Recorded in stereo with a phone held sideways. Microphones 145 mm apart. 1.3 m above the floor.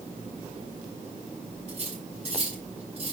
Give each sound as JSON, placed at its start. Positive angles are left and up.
{"t": 1.7, "sound": "cutlery clinking", "side_deg": -45, "distance_m": 6.0}